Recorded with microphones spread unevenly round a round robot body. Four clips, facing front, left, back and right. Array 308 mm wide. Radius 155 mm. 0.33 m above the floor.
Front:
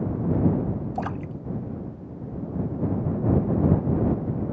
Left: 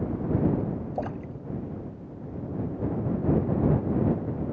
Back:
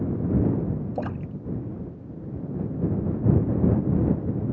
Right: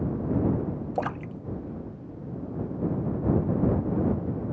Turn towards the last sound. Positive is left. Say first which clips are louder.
# right 2 dB, front 1 dB
turn(degrees=-70)